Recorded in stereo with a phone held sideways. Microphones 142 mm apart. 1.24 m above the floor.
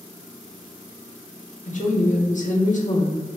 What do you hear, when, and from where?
1.6 s a woman speaking: 60° left (ahead or behind), 0.8 m